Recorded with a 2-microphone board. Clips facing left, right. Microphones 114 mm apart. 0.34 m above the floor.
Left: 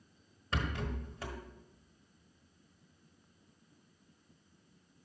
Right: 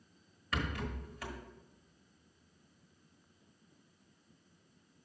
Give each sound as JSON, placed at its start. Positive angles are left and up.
{"t": 0.5, "sound": "a rattle", "side_deg": 25, "distance_m": 1.3}